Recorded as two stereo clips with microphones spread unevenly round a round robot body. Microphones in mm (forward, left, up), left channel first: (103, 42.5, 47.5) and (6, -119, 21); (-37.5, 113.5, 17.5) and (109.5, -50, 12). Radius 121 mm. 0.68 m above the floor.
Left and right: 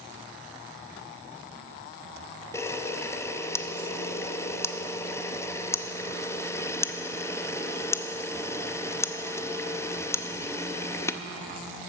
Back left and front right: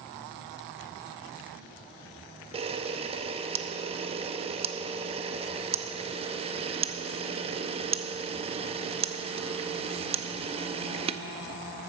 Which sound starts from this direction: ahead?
A camera shutter, at 2.5 s.